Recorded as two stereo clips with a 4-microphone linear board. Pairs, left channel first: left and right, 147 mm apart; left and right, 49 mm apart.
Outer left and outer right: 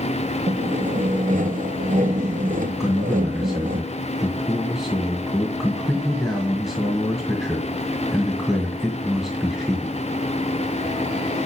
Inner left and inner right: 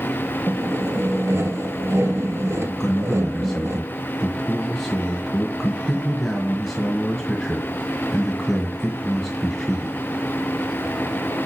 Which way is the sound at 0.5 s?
60° right (ahead or behind).